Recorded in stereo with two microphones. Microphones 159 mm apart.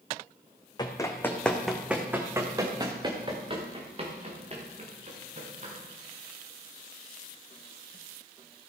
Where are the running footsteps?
25° left (ahead or behind), 1.7 m; by 5.7 s 50° right (ahead or behind), 4.5 m.